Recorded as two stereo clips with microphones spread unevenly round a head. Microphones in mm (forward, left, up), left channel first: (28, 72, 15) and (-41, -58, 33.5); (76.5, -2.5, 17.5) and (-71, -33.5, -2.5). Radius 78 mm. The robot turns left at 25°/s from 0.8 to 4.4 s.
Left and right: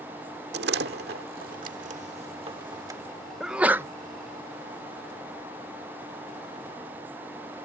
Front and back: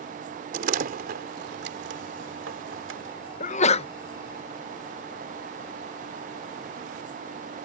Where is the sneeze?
30° right; by 3.9 s 40° right.